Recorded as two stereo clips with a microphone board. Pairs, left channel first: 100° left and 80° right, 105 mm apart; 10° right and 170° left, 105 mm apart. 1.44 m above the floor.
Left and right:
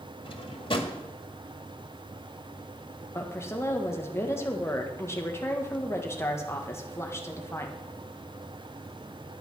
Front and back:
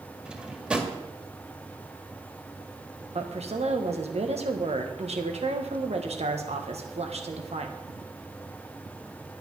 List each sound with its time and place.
0.2 s a drawer: 90° left, 1.8 m
3.1 s a woman speaking: 165° left, 1.5 m